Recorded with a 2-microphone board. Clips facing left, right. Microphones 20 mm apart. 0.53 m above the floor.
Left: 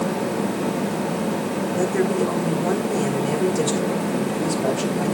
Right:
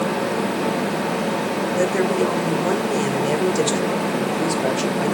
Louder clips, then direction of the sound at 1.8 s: Right 1 dB; 45° right (ahead or behind).